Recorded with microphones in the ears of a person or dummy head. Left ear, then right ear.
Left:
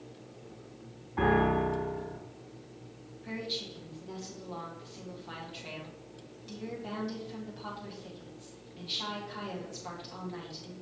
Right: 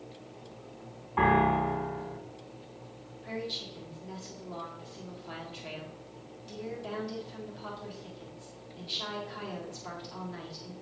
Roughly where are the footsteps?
No footsteps in this recording.